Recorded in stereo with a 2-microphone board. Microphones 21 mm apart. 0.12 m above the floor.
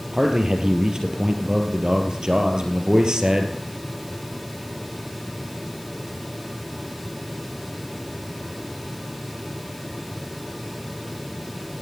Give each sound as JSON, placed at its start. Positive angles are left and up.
{"t": 0.1, "sound": "a man speaking", "side_deg": -30, "distance_m": 2.5}